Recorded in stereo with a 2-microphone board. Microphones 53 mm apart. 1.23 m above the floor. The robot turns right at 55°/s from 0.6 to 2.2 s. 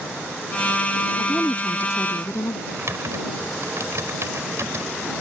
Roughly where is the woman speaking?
Ahead.